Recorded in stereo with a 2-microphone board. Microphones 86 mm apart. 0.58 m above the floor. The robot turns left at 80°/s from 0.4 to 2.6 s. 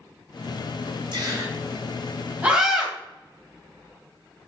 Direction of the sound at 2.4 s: 20° right (ahead or behind).